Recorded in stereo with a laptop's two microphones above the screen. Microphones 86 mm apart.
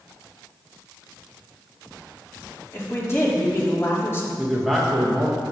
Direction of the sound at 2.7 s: 35° left (ahead or behind).